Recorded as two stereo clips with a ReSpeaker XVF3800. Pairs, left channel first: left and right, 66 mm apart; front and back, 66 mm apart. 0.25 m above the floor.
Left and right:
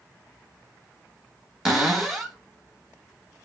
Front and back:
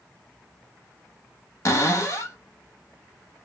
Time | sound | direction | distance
1.6 | a cupboard door | 10° right | 1.0 m